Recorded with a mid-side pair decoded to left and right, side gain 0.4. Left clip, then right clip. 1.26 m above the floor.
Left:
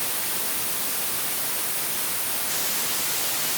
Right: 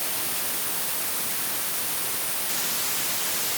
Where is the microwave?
I don't hear a microwave.